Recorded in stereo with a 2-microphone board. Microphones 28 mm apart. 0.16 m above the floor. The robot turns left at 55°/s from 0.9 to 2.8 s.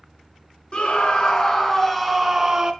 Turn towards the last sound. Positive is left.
turn(degrees=-45)